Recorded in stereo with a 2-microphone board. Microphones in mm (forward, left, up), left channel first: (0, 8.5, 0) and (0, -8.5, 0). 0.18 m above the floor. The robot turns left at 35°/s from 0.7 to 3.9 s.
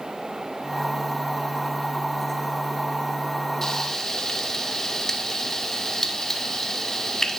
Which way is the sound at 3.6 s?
25° left (ahead or behind).